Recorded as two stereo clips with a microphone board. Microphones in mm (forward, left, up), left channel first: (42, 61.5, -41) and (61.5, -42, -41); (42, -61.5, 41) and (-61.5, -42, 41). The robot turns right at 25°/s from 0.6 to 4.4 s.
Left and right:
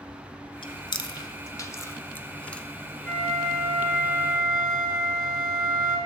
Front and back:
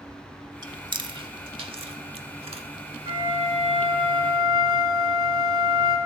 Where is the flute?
Straight behind, 2.5 m; by 6.0 s 145° right, 2.5 m.